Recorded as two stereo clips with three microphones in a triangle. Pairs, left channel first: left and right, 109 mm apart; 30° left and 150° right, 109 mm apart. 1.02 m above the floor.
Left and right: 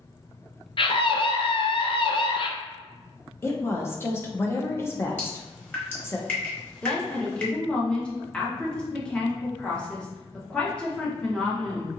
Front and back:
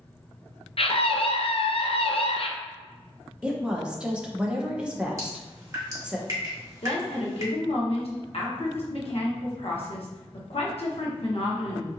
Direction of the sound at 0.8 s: 55° left.